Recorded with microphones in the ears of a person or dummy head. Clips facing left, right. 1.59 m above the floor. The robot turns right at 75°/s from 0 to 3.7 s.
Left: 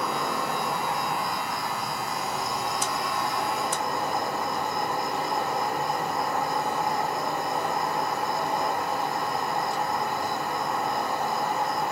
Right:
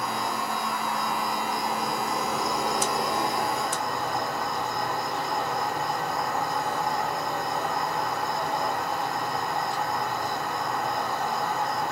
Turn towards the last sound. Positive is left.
turn(degrees=10)